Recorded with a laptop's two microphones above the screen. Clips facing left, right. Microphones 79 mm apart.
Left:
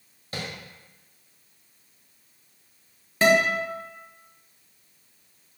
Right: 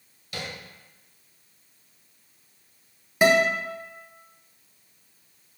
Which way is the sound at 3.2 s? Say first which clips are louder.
Even; 15° right (ahead or behind).